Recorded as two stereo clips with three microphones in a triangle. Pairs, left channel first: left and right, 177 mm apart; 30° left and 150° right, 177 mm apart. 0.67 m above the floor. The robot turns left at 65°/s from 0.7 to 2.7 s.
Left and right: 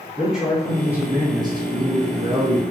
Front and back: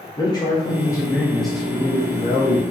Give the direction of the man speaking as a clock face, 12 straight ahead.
12 o'clock.